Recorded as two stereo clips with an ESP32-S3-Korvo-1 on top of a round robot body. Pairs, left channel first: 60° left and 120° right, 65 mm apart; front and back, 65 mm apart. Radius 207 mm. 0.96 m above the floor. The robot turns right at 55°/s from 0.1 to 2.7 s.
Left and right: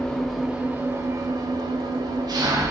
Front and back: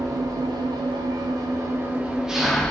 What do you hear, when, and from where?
0.0 s an engine running: 140° left, 0.9 m; by 2.7 s 75° right, 0.9 m